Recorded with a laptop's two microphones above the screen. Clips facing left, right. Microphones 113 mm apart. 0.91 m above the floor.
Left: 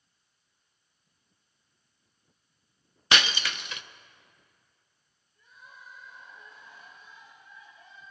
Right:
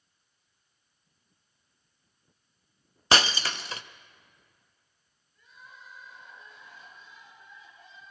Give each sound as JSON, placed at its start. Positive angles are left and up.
{"t": 3.1, "sound": "breaking glass", "side_deg": -35, "distance_m": 0.5}
{"t": 5.3, "sound": "crying", "side_deg": -90, "distance_m": 8.0}